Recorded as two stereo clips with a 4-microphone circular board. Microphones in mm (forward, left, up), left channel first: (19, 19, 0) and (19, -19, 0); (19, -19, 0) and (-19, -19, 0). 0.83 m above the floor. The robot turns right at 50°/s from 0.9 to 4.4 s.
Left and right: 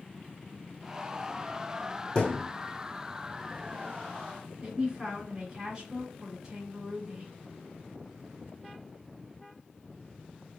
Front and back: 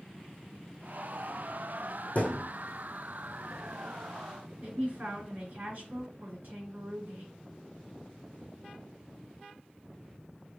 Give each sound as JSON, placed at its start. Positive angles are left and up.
{"t": 2.1, "sound": "a thud", "azimuth_deg": 30, "distance_m": 1.5}
{"t": 4.6, "sound": "a man speaking", "azimuth_deg": -165, "distance_m": 1.9}